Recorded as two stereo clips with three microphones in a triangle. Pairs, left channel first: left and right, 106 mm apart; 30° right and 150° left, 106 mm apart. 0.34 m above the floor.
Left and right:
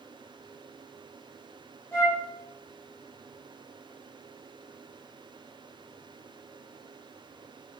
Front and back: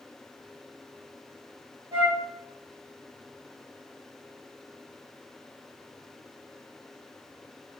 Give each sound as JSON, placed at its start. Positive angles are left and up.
{"t": 1.9, "sound": "a flute", "azimuth_deg": 150, "distance_m": 1.6}